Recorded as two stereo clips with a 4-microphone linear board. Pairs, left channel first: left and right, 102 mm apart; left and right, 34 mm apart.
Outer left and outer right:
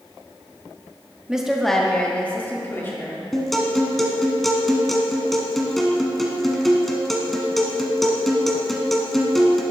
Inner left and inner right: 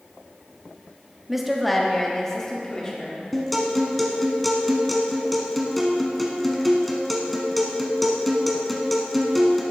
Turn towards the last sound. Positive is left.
turn(degrees=5)  # may be behind; listen again after turning